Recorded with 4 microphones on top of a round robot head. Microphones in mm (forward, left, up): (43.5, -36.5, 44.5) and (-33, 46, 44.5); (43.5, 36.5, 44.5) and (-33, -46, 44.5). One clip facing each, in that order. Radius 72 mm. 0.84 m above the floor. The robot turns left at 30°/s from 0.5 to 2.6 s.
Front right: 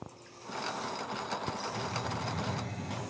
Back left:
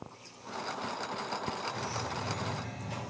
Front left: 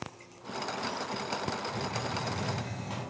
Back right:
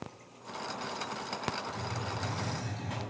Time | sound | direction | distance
1.6 | a hiss | 15° left | 2.5 m